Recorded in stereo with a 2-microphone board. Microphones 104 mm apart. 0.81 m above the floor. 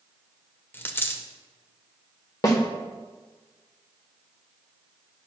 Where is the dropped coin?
25° left (ahead or behind), 0.8 m.